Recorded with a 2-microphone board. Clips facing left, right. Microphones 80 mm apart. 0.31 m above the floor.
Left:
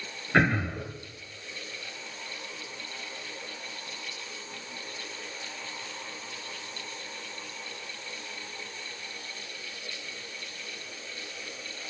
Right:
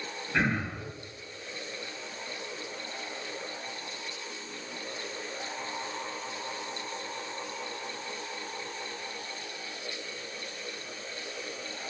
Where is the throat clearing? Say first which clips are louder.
Left 5 dB; 65° left (ahead or behind), 1.1 m.